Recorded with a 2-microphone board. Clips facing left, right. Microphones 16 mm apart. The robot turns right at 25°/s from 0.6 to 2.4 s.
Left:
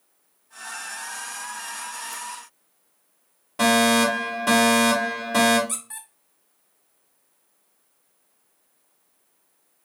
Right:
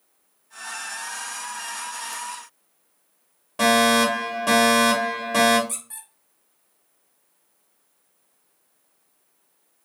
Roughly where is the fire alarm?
Centre.